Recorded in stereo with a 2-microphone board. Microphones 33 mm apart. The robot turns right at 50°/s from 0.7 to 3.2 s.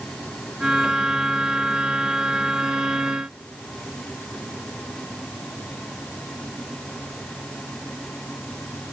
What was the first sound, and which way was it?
Only background noise.